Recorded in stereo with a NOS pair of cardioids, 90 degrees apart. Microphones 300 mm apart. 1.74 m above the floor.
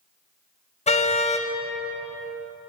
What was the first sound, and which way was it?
A car horn, 25° left.